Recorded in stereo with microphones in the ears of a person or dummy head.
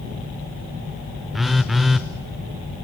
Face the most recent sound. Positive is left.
turn(degrees=0)  # may be behind; listen again after turning